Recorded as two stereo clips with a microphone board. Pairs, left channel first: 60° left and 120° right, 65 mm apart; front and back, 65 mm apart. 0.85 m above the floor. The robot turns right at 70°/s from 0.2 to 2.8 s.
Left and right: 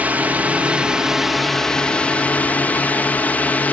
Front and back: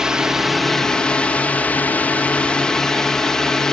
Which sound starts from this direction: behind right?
A drone, at 0.0 s.